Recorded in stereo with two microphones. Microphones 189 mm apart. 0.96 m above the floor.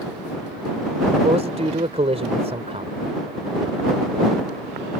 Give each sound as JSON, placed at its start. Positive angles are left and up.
{"t": 1.2, "sound": "a man speaking", "side_deg": -35}